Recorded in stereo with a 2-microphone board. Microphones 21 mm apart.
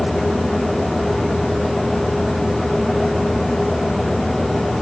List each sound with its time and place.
Only background noise.